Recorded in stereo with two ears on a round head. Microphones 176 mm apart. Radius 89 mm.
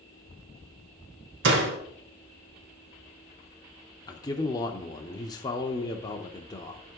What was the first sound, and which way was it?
A door slam, 65° right (ahead or behind).